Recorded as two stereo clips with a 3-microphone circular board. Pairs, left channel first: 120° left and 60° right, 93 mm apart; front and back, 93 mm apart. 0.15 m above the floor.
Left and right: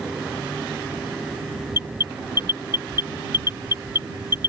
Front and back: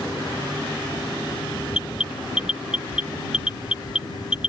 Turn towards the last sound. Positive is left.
turn(degrees=-105)